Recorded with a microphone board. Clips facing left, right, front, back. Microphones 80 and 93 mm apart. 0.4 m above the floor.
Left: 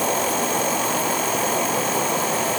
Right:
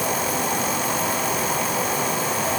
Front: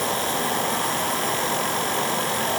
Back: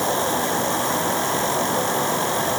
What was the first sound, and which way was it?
An insect, 120° left.